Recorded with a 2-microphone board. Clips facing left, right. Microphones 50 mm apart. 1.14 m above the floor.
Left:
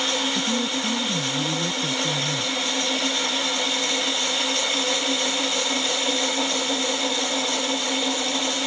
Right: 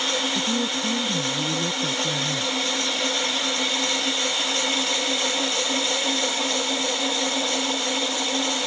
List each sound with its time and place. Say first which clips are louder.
0.3 s a woman speaking: even; 15° right (ahead or behind)